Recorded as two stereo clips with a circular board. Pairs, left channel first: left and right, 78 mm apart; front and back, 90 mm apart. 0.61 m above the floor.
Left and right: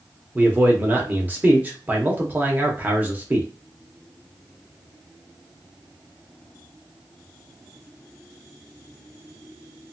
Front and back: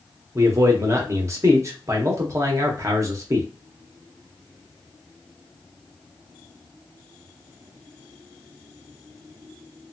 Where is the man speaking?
145° right, 0.8 m.